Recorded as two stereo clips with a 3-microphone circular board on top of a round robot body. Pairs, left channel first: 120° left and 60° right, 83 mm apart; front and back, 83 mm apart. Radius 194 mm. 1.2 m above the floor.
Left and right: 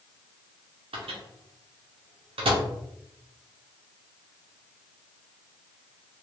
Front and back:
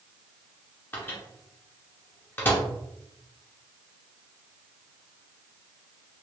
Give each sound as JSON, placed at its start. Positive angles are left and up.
{"t": 0.9, "sound": "a microwave", "azimuth_deg": -70, "distance_m": 0.6}